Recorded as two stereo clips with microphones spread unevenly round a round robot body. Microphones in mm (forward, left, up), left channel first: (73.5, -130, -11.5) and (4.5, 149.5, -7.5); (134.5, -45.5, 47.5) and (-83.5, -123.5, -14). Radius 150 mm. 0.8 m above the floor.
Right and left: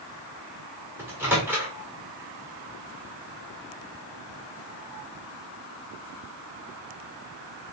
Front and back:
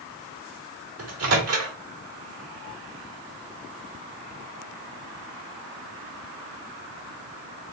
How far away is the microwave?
About 1.7 m.